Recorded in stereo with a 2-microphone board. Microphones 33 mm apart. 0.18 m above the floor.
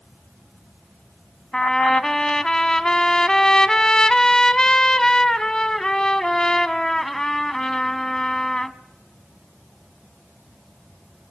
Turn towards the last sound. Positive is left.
turn(degrees=20)  # may be behind; listen again after turning